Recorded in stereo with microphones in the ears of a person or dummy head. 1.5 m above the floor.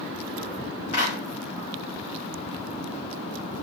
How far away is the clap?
About 3.5 m.